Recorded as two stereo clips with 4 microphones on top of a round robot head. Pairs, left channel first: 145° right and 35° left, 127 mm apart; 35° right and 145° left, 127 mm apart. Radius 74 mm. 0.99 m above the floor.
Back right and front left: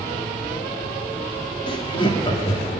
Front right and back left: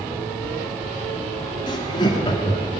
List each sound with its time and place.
1.7 s laughter: 90° right, 2 m